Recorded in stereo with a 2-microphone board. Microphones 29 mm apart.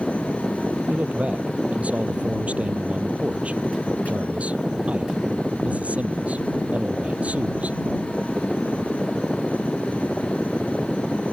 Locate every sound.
0.9 s a man speaking: 55° right (ahead or behind)